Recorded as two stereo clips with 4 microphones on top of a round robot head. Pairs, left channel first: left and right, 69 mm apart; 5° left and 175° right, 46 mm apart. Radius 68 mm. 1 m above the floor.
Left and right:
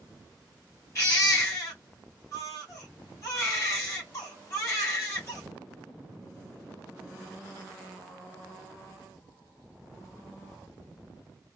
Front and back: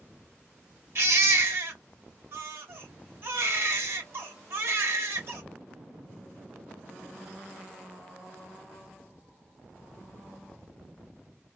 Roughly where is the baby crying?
Behind left.